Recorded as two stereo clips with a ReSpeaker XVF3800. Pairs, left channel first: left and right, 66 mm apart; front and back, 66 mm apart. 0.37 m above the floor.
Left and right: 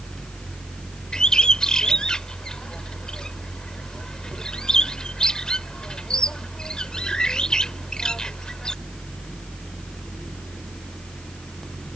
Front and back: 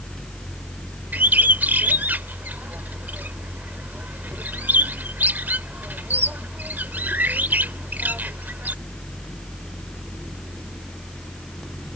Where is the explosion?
I don't hear an explosion.